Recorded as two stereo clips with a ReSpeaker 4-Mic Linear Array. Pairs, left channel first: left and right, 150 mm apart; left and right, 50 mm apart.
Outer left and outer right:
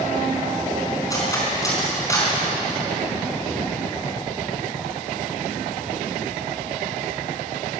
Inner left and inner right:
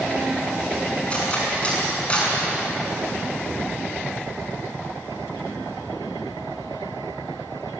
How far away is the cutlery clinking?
About 5 m.